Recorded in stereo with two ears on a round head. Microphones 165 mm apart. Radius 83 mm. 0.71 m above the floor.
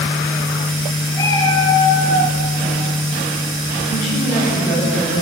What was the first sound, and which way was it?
A cat meowing, 20° left (ahead or behind).